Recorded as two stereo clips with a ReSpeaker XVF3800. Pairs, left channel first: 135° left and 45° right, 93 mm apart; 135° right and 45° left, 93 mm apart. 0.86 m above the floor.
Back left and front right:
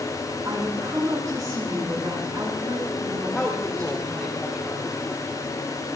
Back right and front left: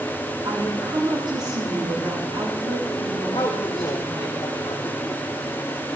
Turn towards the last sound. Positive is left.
turn(degrees=-160)